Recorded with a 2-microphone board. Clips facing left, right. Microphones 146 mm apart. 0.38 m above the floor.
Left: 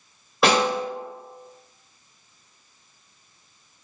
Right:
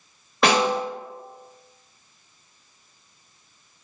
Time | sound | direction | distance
0.4 | a snare drum | 5° left (ahead or behind) | 1.9 m